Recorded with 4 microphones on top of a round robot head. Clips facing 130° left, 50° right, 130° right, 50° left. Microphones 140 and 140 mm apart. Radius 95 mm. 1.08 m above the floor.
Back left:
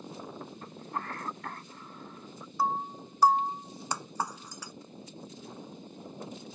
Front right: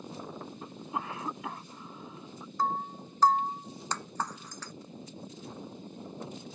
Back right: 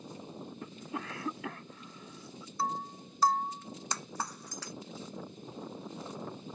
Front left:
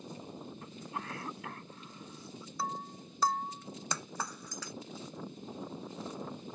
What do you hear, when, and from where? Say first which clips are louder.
0.6 s a cough: front right 1 dB, back right 3 dB; 130° right
2.6 s breaking glass: back left 1 dB, back right 4 dB; 50° left